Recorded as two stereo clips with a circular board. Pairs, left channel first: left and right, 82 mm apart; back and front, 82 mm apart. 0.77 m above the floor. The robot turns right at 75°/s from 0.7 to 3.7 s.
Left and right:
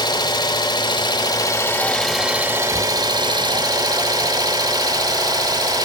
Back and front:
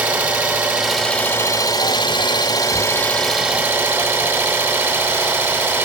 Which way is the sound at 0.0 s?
75° left.